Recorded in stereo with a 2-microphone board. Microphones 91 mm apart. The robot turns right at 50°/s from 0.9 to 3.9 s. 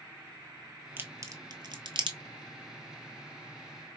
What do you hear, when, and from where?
1.0 s a crack: 25° right (ahead or behind), 0.8 m; by 2.2 s 75° right (ahead or behind), 0.8 m